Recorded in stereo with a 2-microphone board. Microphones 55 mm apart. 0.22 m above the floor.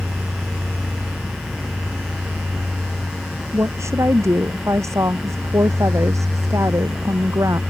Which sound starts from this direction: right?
A woman speaking, at 3.5 s.